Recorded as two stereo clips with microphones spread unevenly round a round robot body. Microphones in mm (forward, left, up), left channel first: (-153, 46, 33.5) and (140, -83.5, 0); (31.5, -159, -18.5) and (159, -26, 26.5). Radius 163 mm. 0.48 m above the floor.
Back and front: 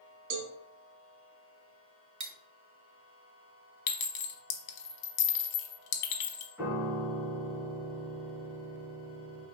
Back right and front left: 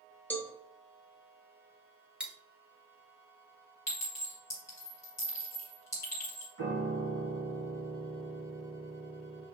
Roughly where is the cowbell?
Ahead right.